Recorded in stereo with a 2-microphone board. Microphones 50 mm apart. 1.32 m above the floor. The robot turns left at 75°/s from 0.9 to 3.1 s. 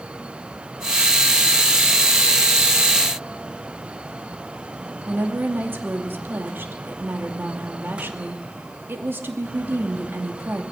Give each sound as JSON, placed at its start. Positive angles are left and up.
{"t": 5.1, "sound": "a woman speaking", "side_deg": -45, "distance_m": 2.5}